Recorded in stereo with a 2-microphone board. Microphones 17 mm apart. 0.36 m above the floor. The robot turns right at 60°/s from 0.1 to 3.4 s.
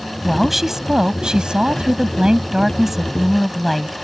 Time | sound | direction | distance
0.2 | a woman speaking | 175° right | ?